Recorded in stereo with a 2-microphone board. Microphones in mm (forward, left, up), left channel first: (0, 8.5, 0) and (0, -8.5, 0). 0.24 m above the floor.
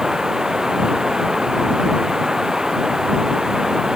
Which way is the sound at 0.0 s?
35° right (ahead or behind).